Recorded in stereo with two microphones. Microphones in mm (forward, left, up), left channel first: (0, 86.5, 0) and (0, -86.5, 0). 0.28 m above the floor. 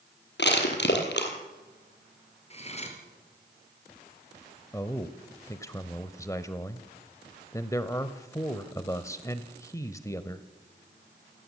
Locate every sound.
0.4 s crushing: 80° left, 4 m
2.5 s cutlery clinking: 35° left (ahead or behind), 4 m
4.7 s a man speaking: 15° left (ahead or behind), 0.9 m